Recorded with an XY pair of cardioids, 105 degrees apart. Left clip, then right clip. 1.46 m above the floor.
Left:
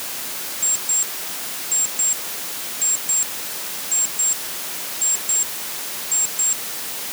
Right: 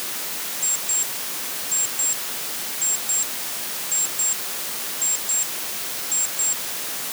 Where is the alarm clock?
20° left.